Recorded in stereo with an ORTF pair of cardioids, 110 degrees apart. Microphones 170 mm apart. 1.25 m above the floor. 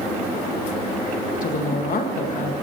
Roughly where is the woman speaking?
Ahead left.